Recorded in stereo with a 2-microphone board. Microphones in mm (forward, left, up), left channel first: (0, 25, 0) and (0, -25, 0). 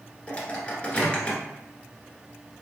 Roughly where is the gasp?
I don't hear a gasp.